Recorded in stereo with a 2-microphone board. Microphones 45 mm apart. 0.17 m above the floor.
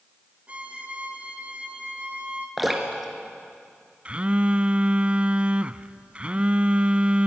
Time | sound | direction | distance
0.5 | a violin | 30° right (ahead or behind) | 2 m
2.6 | dripping | centre (ahead or behind) | 2.5 m
4.0 | a phone buzzing | 30° right (ahead or behind) | 0.5 m